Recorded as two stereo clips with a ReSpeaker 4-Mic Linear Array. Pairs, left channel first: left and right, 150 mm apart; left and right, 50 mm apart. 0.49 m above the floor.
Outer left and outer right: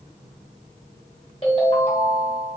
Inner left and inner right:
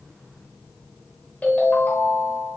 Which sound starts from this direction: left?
A ringtone, at 1.4 s.